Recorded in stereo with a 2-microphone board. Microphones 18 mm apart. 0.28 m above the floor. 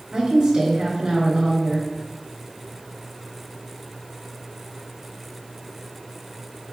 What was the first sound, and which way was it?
A woman speaking, 40° right (ahead or behind).